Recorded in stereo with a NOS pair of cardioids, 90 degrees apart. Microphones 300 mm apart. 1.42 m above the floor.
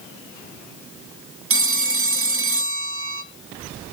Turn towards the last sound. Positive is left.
turn(degrees=-45)